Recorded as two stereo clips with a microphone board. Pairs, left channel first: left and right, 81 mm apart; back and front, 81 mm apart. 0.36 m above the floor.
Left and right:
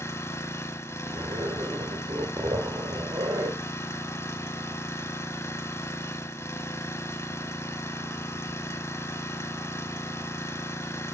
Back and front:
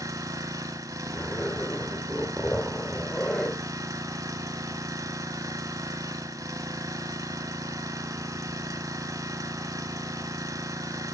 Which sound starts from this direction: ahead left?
An engine running, at 0.0 s.